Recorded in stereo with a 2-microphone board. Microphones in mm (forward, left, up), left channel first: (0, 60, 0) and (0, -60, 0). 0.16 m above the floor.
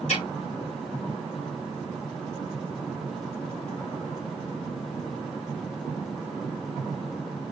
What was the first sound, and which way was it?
A snare drum, 80° left.